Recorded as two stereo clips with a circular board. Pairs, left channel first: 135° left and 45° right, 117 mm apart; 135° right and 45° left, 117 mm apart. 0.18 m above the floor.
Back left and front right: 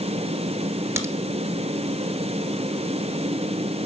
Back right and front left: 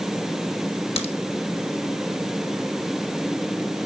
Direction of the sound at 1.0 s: 110° right.